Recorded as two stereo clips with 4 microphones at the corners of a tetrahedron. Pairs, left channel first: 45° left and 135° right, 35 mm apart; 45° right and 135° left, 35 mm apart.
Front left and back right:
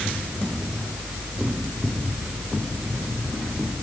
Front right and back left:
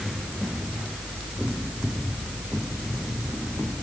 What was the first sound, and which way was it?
Only background noise.